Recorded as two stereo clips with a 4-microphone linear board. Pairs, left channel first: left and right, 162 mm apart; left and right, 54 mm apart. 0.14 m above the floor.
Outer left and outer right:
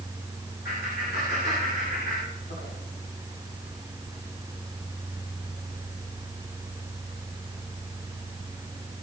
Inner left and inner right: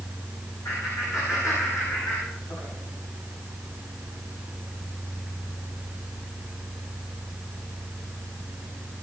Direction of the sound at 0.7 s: 80° left.